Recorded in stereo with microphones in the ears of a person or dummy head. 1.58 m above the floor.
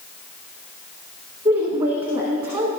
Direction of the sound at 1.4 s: 25° right (ahead or behind).